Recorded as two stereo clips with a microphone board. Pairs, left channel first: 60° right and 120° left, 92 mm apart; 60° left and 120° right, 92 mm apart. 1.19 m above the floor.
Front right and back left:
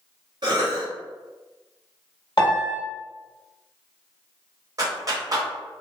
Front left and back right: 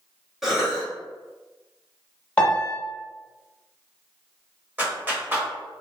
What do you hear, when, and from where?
0.4 s a cough: 155° left, 0.6 m
2.4 s a piano: 15° right, 1.4 m
4.8 s a clap: 170° left, 0.9 m